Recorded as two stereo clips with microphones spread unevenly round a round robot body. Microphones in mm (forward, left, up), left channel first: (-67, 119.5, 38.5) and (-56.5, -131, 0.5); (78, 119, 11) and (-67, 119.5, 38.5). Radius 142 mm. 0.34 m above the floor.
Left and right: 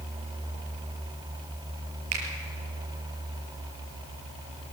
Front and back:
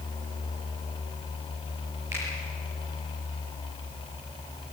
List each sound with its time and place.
2.1 s a finger snap: 100° right, 6 m